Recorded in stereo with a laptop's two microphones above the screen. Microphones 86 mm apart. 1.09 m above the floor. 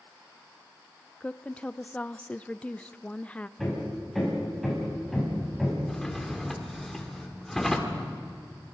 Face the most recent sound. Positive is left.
turn(degrees=5)  # may be behind; listen again after turning